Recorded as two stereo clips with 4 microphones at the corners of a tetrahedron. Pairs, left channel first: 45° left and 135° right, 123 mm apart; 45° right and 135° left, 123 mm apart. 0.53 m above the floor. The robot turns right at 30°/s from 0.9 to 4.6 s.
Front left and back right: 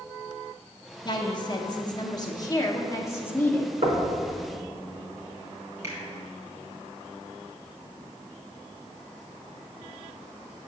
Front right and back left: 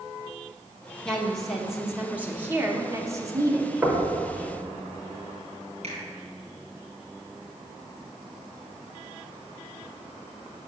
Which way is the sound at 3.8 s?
150° right.